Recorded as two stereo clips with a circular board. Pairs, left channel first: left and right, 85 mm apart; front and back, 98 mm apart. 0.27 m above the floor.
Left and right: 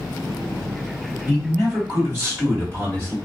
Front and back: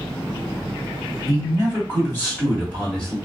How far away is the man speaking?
About 1.9 m.